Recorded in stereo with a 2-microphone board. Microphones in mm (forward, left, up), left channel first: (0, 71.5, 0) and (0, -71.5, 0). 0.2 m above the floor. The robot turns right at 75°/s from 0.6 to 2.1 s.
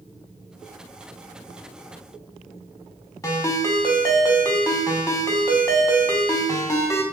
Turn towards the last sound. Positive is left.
turn(degrees=20)  # may be behind; listen again after turning